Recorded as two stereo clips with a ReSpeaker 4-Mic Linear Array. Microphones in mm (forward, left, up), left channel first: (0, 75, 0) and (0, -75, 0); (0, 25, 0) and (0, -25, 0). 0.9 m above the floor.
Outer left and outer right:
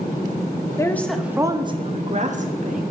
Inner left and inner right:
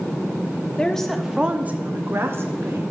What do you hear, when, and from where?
0.8 s a woman speaking: 20° left (ahead or behind), 0.7 m; by 2.9 s 60° right (ahead or behind), 1.4 m